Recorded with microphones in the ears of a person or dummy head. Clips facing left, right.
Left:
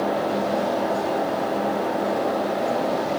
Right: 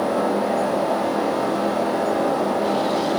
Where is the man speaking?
I don't hear a man speaking.